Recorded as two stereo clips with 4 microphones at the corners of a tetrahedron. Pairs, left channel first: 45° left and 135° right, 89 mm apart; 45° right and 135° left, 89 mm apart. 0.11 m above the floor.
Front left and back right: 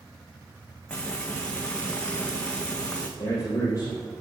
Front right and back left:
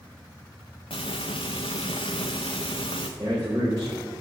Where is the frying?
35° right, 1.7 m.